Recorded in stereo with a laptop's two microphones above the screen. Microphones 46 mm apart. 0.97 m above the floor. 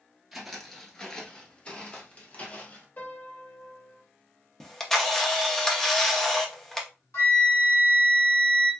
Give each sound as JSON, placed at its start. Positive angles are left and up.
{"t": 0.3, "sound": "footsteps", "side_deg": -5, "distance_m": 1.0}
{"t": 3.0, "sound": "a piano", "side_deg": 40, "distance_m": 1.0}
{"t": 4.6, "sound": "a camera shutter", "side_deg": 10, "distance_m": 0.5}
{"t": 7.1, "sound": "a flute", "side_deg": 65, "distance_m": 1.3}